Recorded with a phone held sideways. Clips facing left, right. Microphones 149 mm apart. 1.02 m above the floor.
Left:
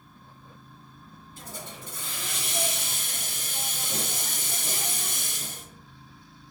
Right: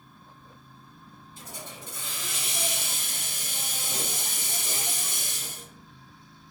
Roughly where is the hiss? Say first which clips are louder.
Left 2 dB; left.